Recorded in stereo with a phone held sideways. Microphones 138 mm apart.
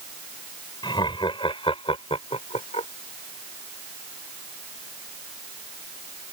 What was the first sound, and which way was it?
Laughter, 35° left (ahead or behind).